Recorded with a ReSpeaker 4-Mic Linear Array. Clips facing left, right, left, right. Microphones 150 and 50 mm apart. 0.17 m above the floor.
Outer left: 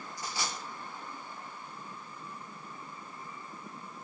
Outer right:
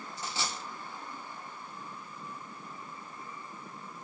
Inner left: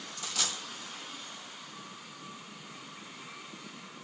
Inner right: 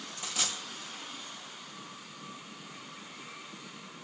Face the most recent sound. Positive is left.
turn(degrees=-25)  # may be behind; listen again after turning